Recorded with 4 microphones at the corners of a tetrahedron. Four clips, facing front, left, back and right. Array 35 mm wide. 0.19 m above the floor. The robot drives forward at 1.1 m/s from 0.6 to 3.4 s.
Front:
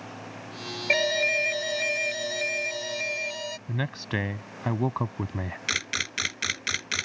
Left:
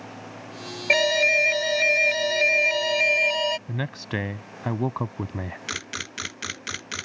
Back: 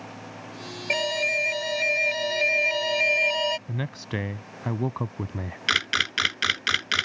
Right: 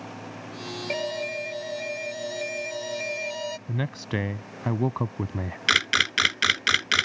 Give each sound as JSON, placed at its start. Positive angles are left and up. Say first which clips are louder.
{"t": 0.9, "sound": "an alarm", "louder": "left 12 dB, front 1 dB", "azimuth_deg": 70}
{"t": 3.7, "sound": "a man speaking", "louder": "even, front 1 dB", "azimuth_deg": 30}
{"t": 5.7, "sound": "a camera shutter", "louder": "right 14 dB, back 6 dB", "azimuth_deg": -120}